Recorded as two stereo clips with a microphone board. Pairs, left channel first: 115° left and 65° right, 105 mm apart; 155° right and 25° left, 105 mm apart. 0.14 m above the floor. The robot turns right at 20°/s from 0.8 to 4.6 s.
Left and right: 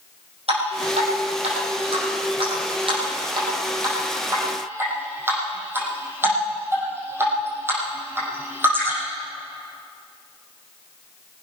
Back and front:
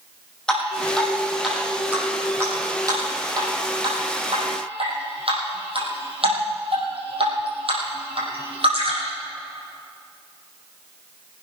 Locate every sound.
0.5 s dripping: 75° right, 5.5 m; by 9.1 s straight ahead, 5.5 m